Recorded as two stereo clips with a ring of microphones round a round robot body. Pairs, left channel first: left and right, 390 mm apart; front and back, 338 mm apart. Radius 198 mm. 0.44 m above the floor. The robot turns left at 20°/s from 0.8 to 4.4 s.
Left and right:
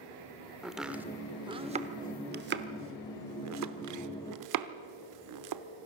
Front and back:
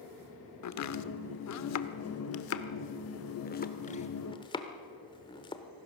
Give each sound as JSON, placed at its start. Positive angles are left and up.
{"t": 0.6, "sound": "chopping", "azimuth_deg": 0, "distance_m": 0.9}